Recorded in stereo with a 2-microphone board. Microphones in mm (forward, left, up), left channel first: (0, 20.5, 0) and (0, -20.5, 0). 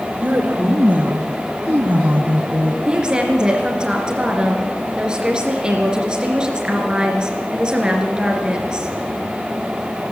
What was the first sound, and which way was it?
A woman speaking, 40° right (ahead or behind).